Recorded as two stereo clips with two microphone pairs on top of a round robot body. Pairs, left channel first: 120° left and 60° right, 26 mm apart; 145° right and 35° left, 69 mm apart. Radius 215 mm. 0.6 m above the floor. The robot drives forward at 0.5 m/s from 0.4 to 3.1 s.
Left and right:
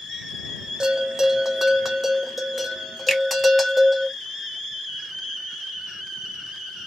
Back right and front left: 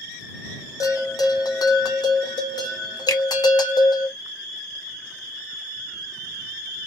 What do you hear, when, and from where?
0.8 s a bell: 115° right, 0.8 m; by 4.1 s 155° right, 1.7 m
3.1 s a finger snap: 160° right, 1.9 m